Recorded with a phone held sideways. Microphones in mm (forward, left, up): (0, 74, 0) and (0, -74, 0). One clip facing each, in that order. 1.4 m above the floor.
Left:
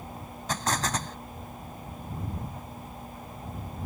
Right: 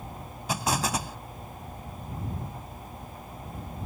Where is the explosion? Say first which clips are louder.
Right 2 dB; 10° right (ahead or behind).